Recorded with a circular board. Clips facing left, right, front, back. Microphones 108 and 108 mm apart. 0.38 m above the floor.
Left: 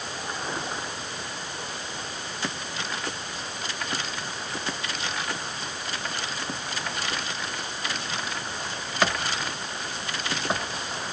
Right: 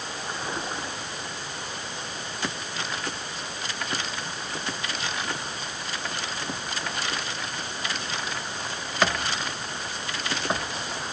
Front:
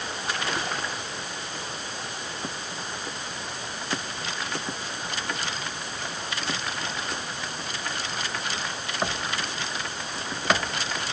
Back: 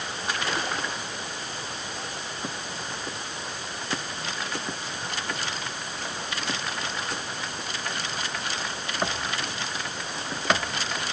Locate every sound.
Only background noise.